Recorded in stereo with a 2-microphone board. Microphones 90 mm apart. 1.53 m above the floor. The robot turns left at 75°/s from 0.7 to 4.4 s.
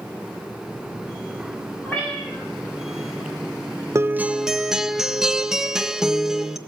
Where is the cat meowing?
25° left, 7.5 m; by 2.4 s 20° right, 7.5 m.